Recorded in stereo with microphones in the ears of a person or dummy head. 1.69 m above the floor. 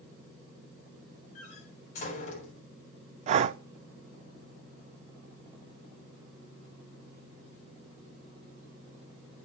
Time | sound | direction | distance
1.4 | a door slam | 45° left (ahead or behind) | 5.5 m
3.3 | breathing | 45° right (ahead or behind) | 0.6 m